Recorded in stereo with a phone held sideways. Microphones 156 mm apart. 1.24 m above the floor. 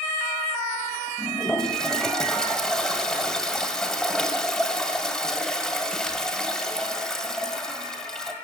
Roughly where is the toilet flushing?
Centre.